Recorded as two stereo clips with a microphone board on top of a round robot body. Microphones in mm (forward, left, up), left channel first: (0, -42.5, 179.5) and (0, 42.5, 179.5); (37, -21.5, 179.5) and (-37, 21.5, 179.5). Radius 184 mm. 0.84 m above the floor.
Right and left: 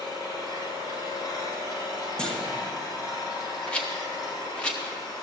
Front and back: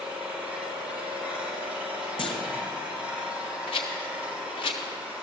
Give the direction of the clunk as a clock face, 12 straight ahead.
12 o'clock.